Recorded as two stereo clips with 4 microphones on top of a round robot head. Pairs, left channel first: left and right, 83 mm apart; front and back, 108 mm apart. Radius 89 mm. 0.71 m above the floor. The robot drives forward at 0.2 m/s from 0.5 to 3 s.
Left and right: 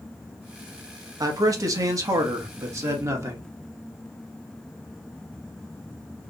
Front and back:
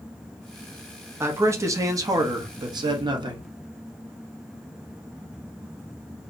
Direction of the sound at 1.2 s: 115° right.